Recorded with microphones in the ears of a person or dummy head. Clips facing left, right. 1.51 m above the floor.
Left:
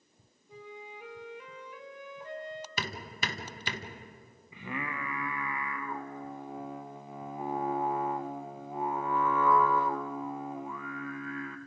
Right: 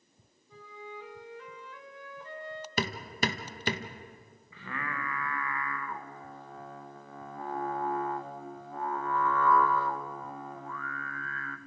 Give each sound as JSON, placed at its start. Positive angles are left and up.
{"t": 0.5, "sound": "a flute", "side_deg": 20, "distance_m": 2.0}
{"t": 2.8, "sound": "hammering", "side_deg": -40, "distance_m": 1.6}
{"t": 4.5, "sound": "singing", "side_deg": 15, "distance_m": 1.1}